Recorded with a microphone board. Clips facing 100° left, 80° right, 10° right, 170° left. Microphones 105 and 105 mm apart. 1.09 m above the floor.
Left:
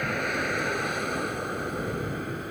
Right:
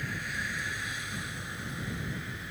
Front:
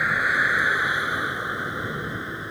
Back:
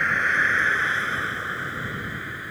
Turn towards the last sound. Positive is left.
turn(degrees=55)